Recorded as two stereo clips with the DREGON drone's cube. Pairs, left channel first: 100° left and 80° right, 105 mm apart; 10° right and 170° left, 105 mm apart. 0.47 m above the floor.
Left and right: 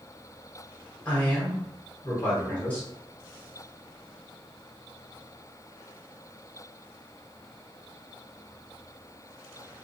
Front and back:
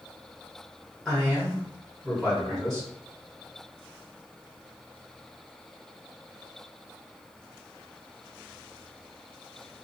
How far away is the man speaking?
About 1.1 m.